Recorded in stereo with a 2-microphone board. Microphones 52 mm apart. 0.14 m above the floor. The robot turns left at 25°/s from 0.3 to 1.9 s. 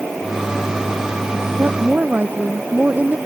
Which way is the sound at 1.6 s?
40° right (ahead or behind).